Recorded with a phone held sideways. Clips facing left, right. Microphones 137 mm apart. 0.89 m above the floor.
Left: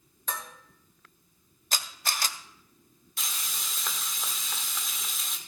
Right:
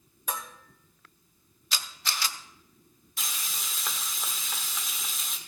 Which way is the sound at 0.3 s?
10° right (ahead or behind).